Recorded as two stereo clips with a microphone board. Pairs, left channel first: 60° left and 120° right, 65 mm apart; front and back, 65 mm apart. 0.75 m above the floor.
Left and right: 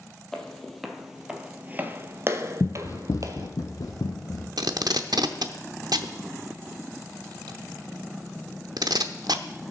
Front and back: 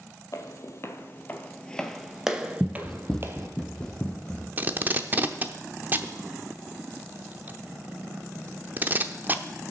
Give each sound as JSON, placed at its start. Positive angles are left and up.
{"t": 0.3, "sound": "footsteps", "azimuth_deg": -20, "distance_m": 1.3}
{"t": 2.6, "sound": "running footsteps", "azimuth_deg": 85, "distance_m": 1.0}
{"t": 4.6, "sound": "tape being pulled", "azimuth_deg": -120, "distance_m": 0.8}